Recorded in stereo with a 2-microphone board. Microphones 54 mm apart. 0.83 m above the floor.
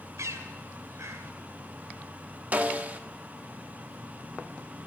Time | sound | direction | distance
0.2 | a bird | 90° right | 2 m
2.5 | a snare drum | 35° right (ahead or behind) | 1.1 m